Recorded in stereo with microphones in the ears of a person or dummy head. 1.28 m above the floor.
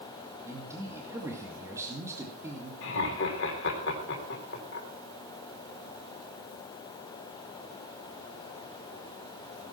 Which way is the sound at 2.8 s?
70° left (ahead or behind).